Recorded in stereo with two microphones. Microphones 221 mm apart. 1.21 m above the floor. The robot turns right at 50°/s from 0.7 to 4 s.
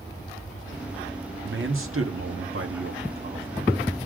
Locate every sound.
1.4 s a man speaking: 130° right, 1.7 m; by 4.1 s straight ahead, 1.7 m